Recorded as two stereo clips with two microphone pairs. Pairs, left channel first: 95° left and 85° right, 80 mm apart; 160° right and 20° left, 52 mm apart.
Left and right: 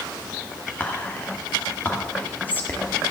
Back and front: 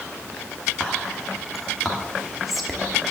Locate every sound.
0.8 s whispering: 120° left, 1.3 m